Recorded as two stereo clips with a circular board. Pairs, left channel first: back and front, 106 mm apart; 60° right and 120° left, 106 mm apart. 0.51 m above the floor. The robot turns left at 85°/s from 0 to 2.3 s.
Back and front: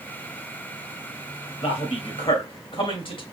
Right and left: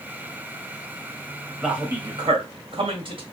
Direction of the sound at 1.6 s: 150° right.